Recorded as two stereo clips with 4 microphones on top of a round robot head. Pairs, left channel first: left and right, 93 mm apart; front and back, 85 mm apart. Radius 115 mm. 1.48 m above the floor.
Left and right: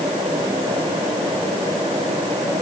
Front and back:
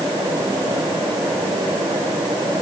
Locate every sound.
Only background noise.